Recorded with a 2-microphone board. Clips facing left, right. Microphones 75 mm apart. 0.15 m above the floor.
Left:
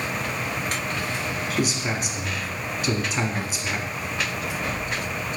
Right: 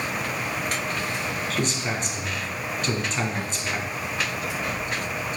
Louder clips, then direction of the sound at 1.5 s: Left 3 dB; 10° left (ahead or behind).